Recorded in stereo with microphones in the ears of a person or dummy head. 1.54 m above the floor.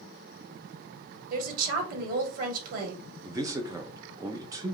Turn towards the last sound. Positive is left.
turn(degrees=-15)  # may be behind; listen again after turning